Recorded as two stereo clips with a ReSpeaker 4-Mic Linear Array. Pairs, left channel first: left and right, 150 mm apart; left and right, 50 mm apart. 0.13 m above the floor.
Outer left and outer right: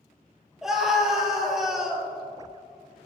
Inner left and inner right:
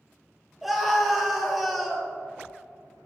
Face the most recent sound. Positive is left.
turn(degrees=-5)  # may be behind; listen again after turning